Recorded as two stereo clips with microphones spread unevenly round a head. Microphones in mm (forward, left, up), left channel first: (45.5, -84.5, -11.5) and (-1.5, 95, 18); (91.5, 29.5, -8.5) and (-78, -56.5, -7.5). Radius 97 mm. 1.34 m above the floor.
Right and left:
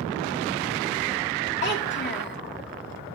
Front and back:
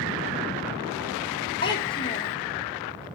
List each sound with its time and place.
1.6 s a child speaking: 40° right, 1.8 m